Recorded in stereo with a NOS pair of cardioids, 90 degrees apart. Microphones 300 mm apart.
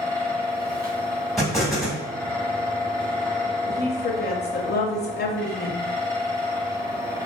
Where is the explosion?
Straight ahead, 0.9 m.